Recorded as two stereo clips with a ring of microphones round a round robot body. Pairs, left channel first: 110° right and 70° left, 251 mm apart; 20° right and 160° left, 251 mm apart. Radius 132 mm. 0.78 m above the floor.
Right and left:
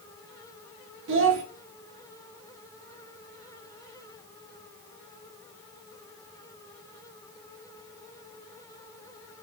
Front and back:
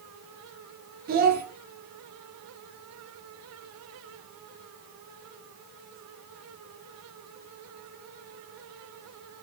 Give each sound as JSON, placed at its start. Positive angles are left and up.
{"t": 1.1, "sound": "a child speaking", "azimuth_deg": 105, "distance_m": 0.7}